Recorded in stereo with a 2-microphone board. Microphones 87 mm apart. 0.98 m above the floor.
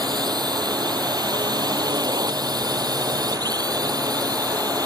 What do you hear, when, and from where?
0.0 s a drone: 50° right (ahead or behind)